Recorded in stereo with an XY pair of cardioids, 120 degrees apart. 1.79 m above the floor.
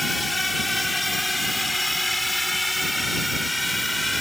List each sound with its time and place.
0.0 s a drone: 15° left; by 4.2 s 10° left